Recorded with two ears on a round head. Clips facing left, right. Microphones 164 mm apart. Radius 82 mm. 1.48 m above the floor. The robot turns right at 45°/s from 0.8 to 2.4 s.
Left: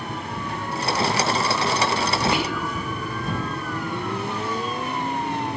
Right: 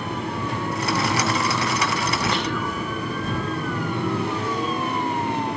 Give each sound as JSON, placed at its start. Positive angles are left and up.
{"t": 2.3, "sound": "whispering", "side_deg": 10}